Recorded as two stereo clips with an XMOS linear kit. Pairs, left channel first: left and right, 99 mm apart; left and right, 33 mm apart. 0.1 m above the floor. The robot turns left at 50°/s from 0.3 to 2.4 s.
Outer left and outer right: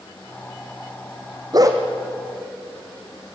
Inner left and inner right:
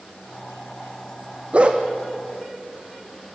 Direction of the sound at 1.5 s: 45° right (ahead or behind).